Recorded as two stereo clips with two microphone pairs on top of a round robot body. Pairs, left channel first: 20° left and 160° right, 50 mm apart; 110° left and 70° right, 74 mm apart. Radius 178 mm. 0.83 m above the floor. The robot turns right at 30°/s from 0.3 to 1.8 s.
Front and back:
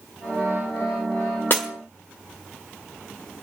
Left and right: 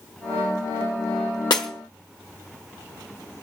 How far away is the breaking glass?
About 0.7 m.